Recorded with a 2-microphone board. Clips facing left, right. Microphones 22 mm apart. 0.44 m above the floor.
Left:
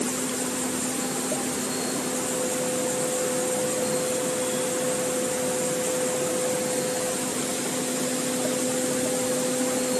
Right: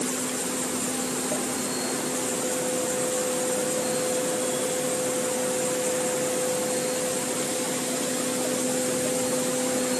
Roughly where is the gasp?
No gasp in this recording.